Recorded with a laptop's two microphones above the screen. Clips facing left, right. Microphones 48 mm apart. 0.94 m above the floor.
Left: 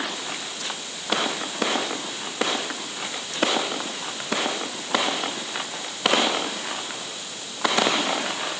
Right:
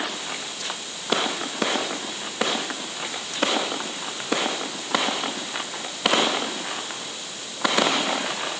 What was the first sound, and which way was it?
Only background noise.